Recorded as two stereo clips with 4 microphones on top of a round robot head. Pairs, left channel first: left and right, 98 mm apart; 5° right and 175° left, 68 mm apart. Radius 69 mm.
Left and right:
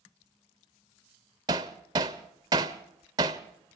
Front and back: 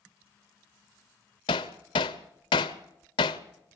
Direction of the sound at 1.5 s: 30° right.